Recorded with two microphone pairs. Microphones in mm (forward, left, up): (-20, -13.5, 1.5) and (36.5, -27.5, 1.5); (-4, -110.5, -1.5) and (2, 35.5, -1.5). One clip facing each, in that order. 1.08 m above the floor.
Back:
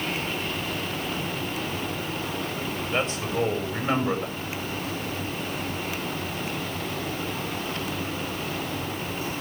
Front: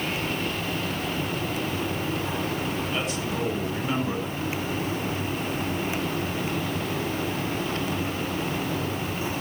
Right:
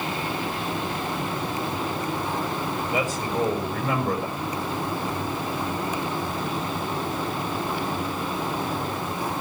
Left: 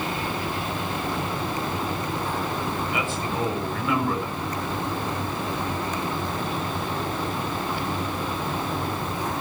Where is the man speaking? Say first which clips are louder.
Back 2 dB, right 2 dB; 140° right, 7 m.